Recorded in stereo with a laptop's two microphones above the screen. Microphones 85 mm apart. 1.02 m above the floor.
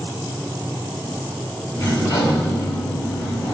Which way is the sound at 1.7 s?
35° left (ahead or behind).